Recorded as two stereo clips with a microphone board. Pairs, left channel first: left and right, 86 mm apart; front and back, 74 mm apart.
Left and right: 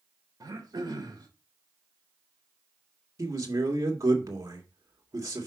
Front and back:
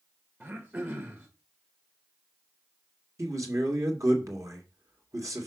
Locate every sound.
0.4 s throat clearing: 125° right, 1.6 m
3.2 s a man speaking: 140° right, 2.0 m